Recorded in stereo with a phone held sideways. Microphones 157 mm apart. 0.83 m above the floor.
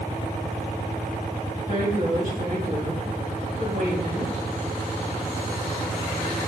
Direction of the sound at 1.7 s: 50° right (ahead or behind).